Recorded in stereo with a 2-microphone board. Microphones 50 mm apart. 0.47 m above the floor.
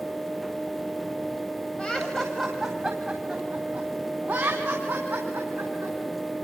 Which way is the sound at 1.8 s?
20° left (ahead or behind).